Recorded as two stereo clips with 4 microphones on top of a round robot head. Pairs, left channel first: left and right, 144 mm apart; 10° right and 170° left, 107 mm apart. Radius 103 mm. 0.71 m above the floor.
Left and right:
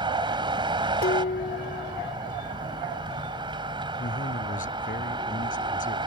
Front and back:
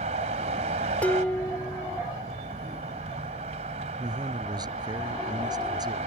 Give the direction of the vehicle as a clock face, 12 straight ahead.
5 o'clock.